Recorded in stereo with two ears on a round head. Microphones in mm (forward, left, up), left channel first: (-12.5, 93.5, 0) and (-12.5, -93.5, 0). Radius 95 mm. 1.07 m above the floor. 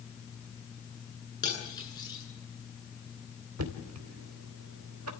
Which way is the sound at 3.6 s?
80° right.